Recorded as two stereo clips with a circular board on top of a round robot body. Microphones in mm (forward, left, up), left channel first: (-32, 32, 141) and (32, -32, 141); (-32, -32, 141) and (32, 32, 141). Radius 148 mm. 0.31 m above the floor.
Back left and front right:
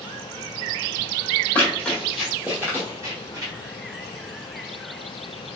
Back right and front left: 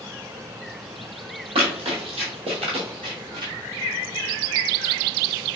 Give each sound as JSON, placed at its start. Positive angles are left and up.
{"t": 1.6, "sound": "running footsteps", "azimuth_deg": 60, "distance_m": 1.0}